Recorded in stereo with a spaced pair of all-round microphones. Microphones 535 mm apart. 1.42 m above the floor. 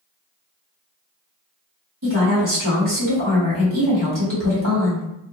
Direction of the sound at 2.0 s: 35° right (ahead or behind).